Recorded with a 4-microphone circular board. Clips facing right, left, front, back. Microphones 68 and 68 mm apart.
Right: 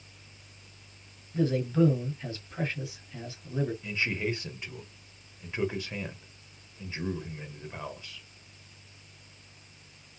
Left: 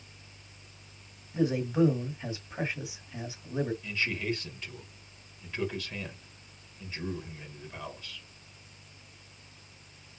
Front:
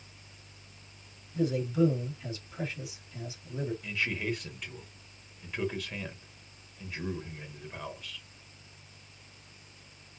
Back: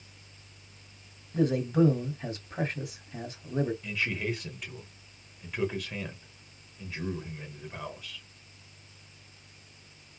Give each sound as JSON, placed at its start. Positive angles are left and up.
{"t": 1.3, "sound": "a man speaking", "azimuth_deg": 160, "distance_m": 1.8}
{"t": 3.8, "sound": "a man speaking", "azimuth_deg": -95, "distance_m": 1.6}